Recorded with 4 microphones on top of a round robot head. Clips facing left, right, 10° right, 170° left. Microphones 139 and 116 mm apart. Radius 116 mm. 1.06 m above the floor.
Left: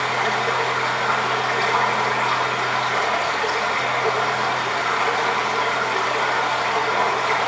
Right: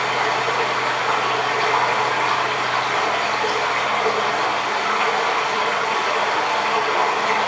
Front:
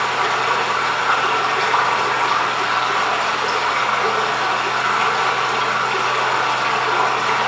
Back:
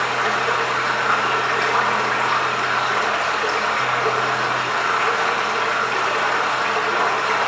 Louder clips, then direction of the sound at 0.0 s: Right 1 dB, front 2 dB; 25° right.